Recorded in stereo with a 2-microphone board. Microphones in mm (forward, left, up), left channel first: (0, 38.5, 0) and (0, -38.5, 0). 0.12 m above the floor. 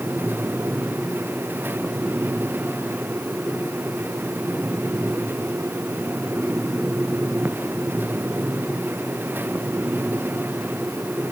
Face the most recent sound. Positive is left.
No sound to turn to.